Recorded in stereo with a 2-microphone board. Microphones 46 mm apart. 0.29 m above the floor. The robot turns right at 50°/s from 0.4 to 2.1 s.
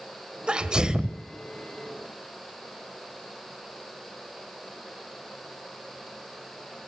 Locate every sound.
0.5 s a sneeze: 20° right (ahead or behind), 0.9 m; by 1.2 s 10° right (ahead or behind), 0.9 m